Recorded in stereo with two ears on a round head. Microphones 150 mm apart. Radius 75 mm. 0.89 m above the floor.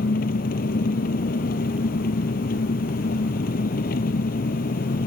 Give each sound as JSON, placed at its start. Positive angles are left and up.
{"t": 0.0, "sound": "an engine running", "side_deg": 60}